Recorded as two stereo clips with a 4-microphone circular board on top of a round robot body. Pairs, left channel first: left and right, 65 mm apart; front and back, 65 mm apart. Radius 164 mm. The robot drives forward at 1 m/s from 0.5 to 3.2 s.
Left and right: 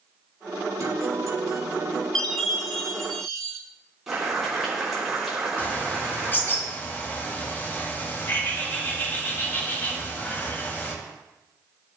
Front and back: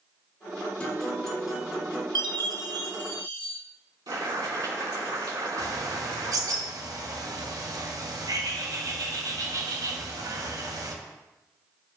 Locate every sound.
0.8 s a guitar: 70° right, 2.5 m; by 2.0 s 105° right, 2 m
2.1 s a chime: 170° left, 0.9 m; by 3.6 s 175° left, 1.9 m
4.1 s boiling: 170° right, 4 m
5.6 s a bird: 150° left, 1.5 m